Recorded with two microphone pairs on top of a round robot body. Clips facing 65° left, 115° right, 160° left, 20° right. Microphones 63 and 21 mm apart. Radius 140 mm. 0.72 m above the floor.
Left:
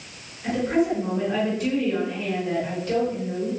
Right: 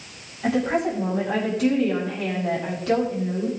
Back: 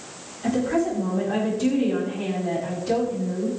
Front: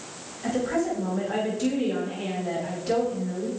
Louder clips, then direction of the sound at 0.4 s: Even, back 3 dB; 105° right.